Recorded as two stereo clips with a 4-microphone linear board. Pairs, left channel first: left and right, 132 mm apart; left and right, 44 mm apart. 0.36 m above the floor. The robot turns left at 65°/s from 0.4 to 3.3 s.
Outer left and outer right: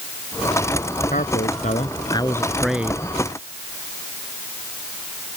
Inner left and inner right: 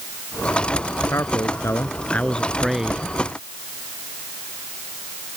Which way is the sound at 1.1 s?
100° left.